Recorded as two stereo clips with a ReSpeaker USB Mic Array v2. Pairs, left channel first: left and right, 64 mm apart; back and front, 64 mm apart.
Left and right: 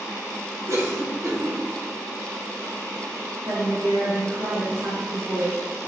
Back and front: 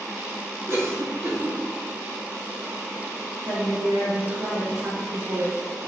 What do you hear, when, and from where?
0.7 s a cough: 50° right, 1.7 m
3.5 s a woman speaking: 35° right, 2.5 m